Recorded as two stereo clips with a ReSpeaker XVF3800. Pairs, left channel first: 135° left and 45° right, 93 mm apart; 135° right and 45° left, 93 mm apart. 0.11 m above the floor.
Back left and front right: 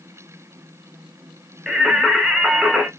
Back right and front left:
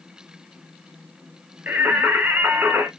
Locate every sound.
1.7 s singing: 35° left, 0.7 m